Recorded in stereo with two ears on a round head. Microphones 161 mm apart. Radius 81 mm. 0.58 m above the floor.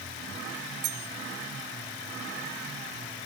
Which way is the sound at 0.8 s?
65° right (ahead or behind).